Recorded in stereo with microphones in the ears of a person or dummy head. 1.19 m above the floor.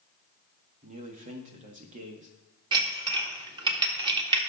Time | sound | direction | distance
0.8 | a man speaking | 40° right (ahead or behind) | 1.3 m
2.7 | dishes clattering | 25° right (ahead or behind) | 1.2 m